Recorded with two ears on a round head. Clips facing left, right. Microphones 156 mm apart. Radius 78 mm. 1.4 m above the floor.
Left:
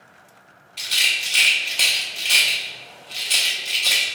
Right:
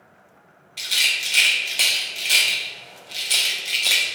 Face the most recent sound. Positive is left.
turn(degrees=-5)  # may be behind; listen again after turning